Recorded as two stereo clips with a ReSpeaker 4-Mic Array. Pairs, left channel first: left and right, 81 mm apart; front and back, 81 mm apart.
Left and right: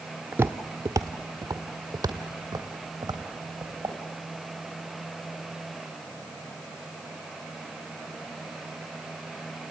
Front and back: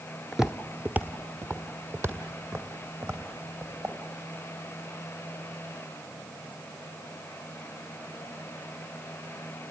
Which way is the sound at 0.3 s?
95° right.